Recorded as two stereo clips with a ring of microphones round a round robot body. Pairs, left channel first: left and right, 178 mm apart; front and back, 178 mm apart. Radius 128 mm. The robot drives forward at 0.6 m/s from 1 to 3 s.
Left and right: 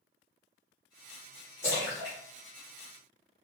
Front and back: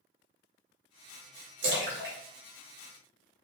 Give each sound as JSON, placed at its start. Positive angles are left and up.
{"t": 1.6, "sound": "a splash", "azimuth_deg": 170, "distance_m": 1.5}